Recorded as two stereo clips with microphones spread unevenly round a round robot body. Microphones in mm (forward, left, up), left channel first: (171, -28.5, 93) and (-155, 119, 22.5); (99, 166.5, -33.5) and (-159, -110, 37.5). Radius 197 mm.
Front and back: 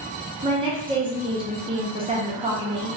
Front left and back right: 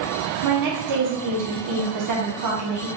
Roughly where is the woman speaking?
Behind right.